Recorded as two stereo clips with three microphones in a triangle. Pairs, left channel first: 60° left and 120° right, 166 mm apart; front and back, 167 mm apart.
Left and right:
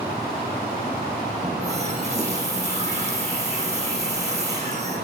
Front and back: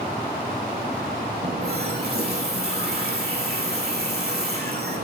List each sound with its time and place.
1.4 s a running tap: 170° right, 5 m